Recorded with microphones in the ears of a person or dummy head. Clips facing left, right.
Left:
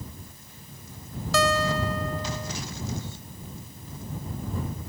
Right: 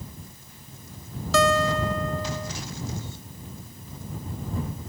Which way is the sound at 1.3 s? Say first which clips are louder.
Right 3 dB; 70° right (ahead or behind).